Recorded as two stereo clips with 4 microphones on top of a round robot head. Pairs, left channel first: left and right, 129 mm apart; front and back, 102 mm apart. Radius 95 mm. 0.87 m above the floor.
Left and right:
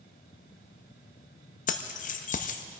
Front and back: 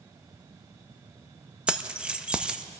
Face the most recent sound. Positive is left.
turn(degrees=100)